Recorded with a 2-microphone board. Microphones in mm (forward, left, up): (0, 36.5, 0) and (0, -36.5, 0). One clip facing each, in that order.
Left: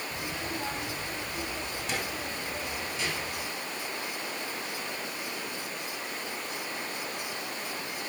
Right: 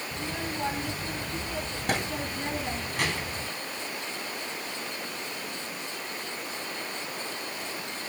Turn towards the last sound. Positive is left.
turn(degrees=-65)  # may be behind; listen again after turning